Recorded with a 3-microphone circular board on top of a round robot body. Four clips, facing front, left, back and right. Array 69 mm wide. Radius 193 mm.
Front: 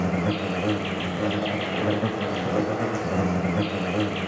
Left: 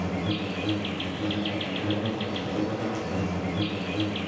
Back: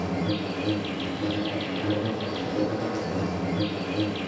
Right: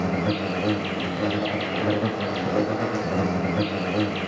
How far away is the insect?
About 2 m.